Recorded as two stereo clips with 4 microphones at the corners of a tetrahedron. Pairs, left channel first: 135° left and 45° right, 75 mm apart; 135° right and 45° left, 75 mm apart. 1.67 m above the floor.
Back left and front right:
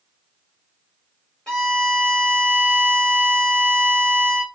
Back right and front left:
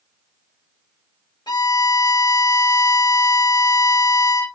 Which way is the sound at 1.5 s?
145° right.